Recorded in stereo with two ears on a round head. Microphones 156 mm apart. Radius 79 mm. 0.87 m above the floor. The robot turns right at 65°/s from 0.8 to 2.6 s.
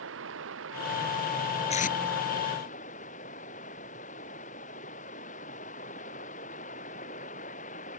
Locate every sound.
0.0 s running water: 75° right; by 8.0 s 40° left
1.7 s tape being pulled: 35° left (ahead or behind); by 2.0 s 50° left (ahead or behind)